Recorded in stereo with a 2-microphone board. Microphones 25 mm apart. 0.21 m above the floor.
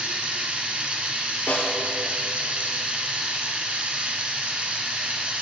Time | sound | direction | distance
0.0 | running water | 55° right (ahead or behind) | 2.5 m
1.5 | a snare drum | 75° left (ahead or behind) | 2.0 m